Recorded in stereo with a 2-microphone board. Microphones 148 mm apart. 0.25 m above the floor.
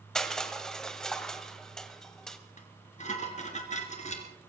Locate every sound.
0.1 s crushing: 5° left (ahead or behind), 1.6 m
2.6 s dishes clattering: 50° left (ahead or behind), 2.5 m